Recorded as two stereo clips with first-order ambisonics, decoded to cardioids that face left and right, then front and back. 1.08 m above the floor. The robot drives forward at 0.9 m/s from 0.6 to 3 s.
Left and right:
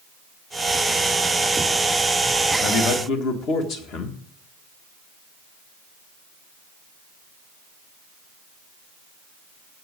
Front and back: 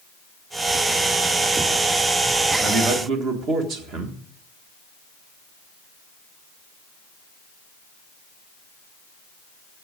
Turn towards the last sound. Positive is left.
turn(degrees=135)